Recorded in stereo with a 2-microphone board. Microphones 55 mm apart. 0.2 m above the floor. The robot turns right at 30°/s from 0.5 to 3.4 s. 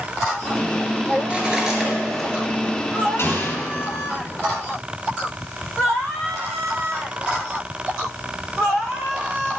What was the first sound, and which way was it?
Cutlery clinking, 20° right (ahead or behind).